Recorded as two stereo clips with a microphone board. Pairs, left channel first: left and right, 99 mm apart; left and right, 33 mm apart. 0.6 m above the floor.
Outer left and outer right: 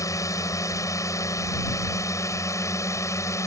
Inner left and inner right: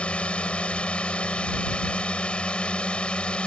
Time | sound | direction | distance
0.0 | a drone | 30° left (ahead or behind) | ?